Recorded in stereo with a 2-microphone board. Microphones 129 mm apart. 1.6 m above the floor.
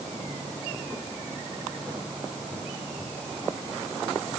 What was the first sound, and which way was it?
Only background noise.